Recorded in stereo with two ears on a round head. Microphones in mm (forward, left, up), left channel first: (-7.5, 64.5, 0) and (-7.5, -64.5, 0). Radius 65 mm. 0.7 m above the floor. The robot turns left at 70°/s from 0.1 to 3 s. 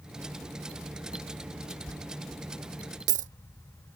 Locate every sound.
1.9 s a dropped coin: 30° left (ahead or behind); by 3.3 s 50° right (ahead or behind)